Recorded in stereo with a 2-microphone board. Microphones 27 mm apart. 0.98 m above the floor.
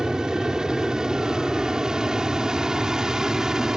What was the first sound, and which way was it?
An aircraft, 25° right (ahead or behind).